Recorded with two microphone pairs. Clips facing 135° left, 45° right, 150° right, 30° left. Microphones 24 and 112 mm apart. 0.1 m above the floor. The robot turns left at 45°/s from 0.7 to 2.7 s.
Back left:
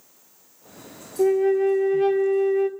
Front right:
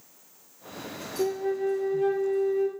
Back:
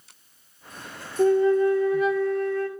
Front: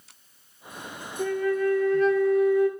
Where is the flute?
170° left, 0.5 m; by 2.7 s 100° left, 0.5 m.